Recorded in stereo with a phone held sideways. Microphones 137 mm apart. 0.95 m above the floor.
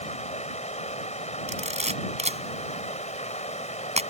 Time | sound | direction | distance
0.0 | running water | 55° left (ahead or behind) | ?
1.5 | a camera shutter | 55° right (ahead or behind) | ?